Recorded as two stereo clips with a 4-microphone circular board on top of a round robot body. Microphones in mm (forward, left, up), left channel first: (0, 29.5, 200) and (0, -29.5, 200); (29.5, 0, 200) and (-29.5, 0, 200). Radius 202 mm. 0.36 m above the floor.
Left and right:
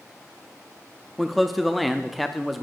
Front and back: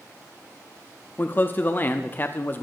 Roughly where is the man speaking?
Ahead.